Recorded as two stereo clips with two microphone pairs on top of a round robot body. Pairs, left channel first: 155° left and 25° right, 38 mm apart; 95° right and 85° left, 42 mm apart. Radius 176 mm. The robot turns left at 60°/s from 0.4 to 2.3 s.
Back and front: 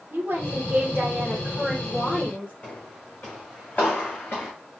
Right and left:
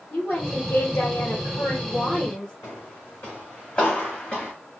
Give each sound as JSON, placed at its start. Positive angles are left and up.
{"t": 0.1, "sound": "a woman speaking", "azimuth_deg": -45, "distance_m": 2.5}
{"t": 2.6, "sound": "footsteps", "azimuth_deg": -125, "distance_m": 2.5}